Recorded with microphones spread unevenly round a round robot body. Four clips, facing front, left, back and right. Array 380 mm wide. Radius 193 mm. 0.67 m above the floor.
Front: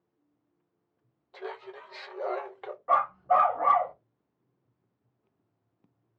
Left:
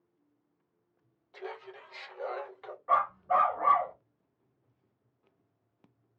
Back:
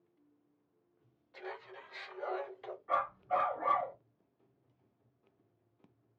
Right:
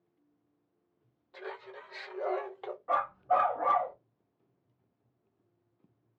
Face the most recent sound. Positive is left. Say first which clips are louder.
# left 2 dB, front 10 dB
turn(degrees=15)